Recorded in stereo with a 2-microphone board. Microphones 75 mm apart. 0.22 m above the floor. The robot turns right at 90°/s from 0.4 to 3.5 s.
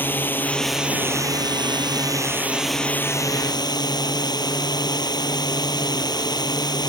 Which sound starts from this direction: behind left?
A drone, at 0.0 s.